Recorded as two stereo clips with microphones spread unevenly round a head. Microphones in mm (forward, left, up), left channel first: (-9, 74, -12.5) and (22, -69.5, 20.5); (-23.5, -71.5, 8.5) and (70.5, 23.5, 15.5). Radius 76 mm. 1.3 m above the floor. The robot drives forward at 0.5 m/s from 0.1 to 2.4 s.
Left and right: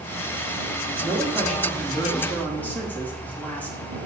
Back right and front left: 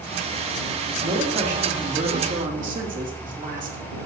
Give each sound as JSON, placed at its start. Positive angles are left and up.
{"t": 1.0, "sound": "a man speaking", "azimuth_deg": 20, "distance_m": 4.0}